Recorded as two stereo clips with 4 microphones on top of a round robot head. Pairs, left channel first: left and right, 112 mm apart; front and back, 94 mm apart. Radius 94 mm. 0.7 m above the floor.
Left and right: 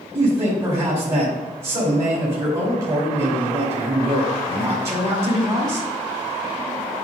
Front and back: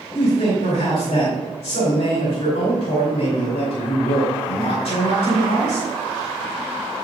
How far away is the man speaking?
About 2 m.